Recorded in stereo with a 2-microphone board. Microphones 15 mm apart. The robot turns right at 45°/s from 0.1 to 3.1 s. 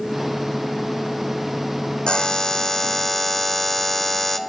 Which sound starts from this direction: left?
A buzzer, at 2.1 s.